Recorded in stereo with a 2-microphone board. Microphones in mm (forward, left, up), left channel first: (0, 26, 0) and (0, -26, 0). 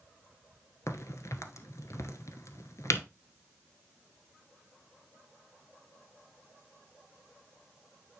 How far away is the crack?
About 1.1 m.